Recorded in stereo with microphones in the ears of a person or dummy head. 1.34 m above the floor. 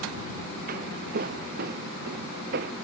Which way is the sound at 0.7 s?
50° right (ahead or behind).